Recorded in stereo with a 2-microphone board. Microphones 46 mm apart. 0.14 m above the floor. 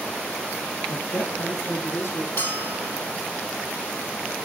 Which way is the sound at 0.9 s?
65° left (ahead or behind).